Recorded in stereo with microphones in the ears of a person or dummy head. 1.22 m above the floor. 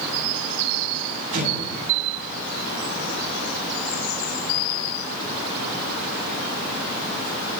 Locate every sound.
1.3 s an explosion: 45° right (ahead or behind), 8 m